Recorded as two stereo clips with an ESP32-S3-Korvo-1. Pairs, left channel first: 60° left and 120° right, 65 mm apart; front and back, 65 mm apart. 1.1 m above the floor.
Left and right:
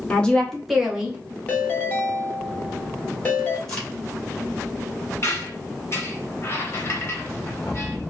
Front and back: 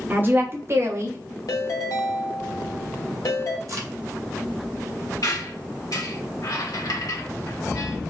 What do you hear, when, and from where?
0.1 s a woman speaking: 125° left, 1.0 m; by 1.2 s 175° left, 0.9 m
1.5 s a ringtone: 5° right, 1.2 m
3.7 s a crack: 140° left, 2 m
5.2 s a squeak: 15° left, 1.3 m